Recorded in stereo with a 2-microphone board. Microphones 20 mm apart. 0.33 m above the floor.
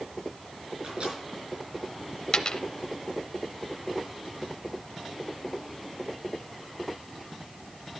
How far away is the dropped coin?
About 0.5 m.